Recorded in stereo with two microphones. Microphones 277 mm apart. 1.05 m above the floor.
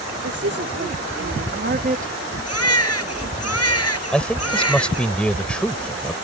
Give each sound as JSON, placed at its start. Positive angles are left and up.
{"t": 0.2, "sound": "a woman speaking", "side_deg": -60}
{"t": 2.5, "sound": "a baby crying", "side_deg": 60}
{"t": 4.1, "sound": "a man speaking", "side_deg": 5}